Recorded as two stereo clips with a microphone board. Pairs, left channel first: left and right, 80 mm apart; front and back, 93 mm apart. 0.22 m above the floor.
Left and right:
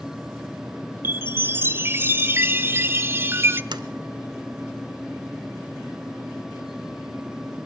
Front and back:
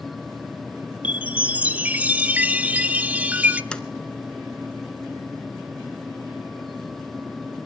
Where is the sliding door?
80° right, 1.1 m.